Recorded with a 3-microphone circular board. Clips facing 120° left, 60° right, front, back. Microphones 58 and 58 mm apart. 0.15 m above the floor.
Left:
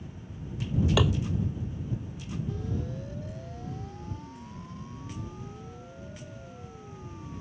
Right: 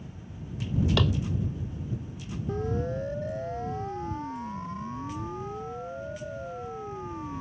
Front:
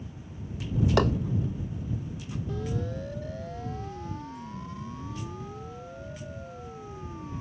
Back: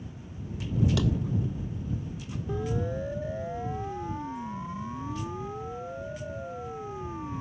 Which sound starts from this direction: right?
A siren, at 2.5 s.